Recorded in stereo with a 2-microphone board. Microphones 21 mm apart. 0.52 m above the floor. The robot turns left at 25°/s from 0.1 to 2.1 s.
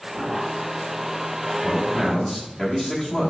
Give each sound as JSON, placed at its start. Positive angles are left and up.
{"t": 1.6, "sound": "a man speaking", "side_deg": 25, "distance_m": 0.9}